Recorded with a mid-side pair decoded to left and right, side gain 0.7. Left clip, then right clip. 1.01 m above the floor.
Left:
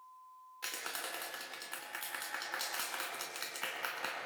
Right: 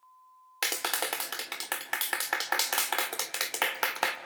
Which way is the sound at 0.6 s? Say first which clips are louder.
Right 10 dB; 65° right.